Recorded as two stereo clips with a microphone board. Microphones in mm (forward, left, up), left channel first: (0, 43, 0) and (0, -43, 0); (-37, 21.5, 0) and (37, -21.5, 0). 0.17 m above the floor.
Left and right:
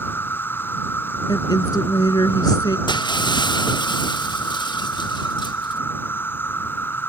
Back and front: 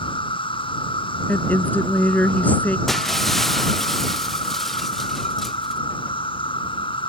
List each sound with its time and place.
0.0 s an insect: 155° left
1.3 s a woman speaking: 80° left
2.9 s breaking glass: 60° left